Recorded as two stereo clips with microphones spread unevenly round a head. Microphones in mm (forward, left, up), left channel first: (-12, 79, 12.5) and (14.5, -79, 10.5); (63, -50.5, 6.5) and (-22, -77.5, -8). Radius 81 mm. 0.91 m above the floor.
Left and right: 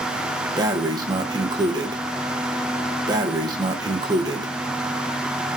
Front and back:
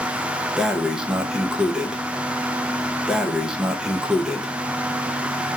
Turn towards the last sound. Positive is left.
turn(degrees=-105)